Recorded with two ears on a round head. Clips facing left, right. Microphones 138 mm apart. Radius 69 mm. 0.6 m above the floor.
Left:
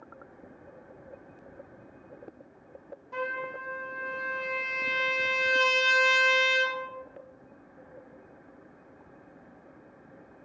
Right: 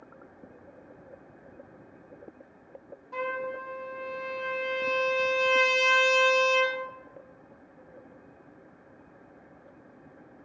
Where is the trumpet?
Centre (ahead or behind), 0.6 m.